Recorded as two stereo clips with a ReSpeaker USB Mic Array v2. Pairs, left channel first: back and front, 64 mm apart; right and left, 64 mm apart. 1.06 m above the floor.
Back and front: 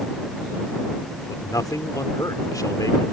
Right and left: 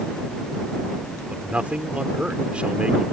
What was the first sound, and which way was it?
A man speaking, 160° left.